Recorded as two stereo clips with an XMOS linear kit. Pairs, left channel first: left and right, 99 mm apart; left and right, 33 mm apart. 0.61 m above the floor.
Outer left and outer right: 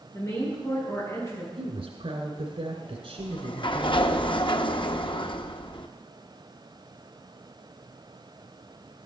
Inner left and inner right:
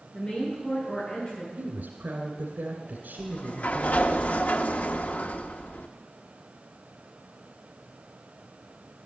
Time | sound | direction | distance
0.1 | a woman speaking | 25° left (ahead or behind) | 8 m
1.6 | a woman speaking | 70° right (ahead or behind) | 2 m
3.2 | a sliding door | 50° left (ahead or behind) | 0.7 m